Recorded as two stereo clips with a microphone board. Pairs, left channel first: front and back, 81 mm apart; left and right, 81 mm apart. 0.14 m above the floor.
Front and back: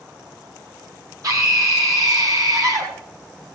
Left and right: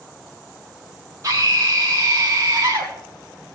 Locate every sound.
1.2 s a scream: 140° right, 7 m